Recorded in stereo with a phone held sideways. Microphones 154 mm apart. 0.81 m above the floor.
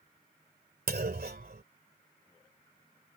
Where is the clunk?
85° right.